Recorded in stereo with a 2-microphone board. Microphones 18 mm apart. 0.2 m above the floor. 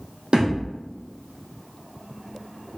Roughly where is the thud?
Right.